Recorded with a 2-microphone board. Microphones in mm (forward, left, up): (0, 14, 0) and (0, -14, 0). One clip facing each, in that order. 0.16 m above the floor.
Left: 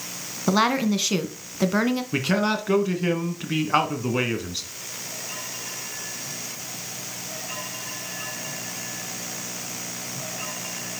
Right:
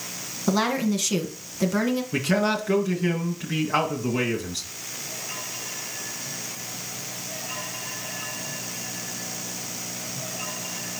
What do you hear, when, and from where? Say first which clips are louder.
0.5 s a woman speaking: left 2 dB; 25° left (ahead or behind), 1.4 m
2.1 s a man speaking: right 1 dB; 20° left (ahead or behind), 2.0 m